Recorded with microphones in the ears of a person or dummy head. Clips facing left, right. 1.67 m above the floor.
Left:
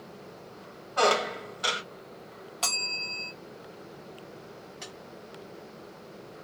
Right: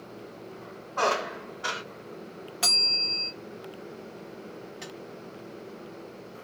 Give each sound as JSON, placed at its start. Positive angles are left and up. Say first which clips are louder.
{"t": 1.0, "sound": "a squeak", "louder": "left 3 dB", "side_deg": 45, "distance_m": 1.0}
{"t": 2.6, "sound": "a bell", "louder": "right 2 dB", "side_deg": -15, "distance_m": 0.8}
{"t": 4.8, "sound": "tapping", "louder": "right 3 dB", "side_deg": -5, "distance_m": 1.3}